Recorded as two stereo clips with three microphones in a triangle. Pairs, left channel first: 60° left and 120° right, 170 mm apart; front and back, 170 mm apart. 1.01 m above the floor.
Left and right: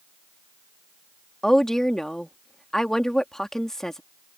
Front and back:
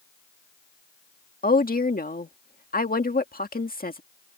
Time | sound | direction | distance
1.4 | a woman speaking | 25° right | ?